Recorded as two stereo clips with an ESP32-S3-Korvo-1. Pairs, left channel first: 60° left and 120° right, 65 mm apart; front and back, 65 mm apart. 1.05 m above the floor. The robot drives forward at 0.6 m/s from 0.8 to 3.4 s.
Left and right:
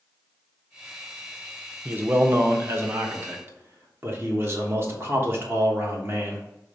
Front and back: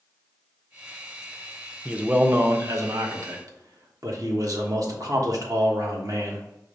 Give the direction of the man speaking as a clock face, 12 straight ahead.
4 o'clock.